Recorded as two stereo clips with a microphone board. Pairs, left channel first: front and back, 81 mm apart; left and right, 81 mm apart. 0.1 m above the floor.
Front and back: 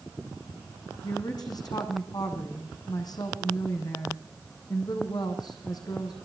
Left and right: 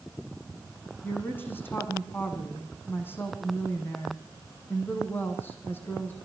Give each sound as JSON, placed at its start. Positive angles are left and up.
{"t": 1.0, "sound": "a woman speaking", "azimuth_deg": 30, "distance_m": 5.0}